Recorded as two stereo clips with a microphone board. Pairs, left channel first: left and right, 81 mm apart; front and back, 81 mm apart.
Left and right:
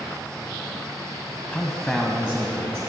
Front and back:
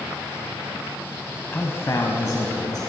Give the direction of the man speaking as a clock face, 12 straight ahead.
11 o'clock.